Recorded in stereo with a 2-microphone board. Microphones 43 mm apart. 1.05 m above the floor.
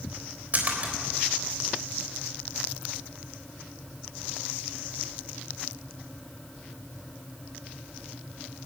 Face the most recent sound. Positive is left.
turn(degrees=-40)  # may be behind; listen again after turning